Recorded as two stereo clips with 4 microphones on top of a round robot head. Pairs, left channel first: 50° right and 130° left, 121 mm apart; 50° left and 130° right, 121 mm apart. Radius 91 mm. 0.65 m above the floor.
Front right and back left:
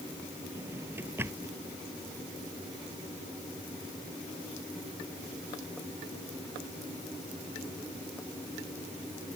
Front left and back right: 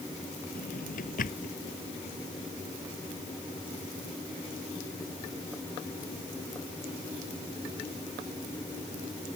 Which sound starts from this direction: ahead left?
A drawer, at 0.6 s.